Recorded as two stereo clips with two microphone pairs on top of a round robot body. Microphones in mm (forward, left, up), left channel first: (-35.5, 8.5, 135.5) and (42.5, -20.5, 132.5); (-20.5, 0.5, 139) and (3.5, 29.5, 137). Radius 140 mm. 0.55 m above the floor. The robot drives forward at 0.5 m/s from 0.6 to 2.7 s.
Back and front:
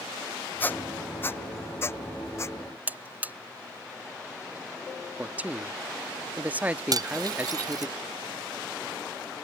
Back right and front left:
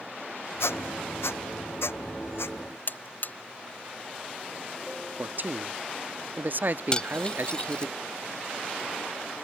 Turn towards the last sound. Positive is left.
turn(degrees=-60)